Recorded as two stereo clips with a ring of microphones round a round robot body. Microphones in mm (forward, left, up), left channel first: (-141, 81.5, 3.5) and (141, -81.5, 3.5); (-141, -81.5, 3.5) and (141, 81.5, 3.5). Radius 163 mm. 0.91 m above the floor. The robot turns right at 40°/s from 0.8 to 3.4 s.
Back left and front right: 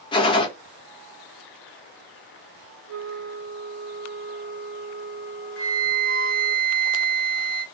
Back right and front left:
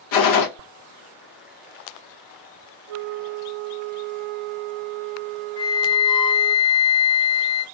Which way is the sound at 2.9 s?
10° left.